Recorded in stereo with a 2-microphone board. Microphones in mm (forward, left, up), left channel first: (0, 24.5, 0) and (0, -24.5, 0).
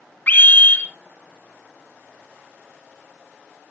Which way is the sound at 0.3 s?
40° left (ahead or behind).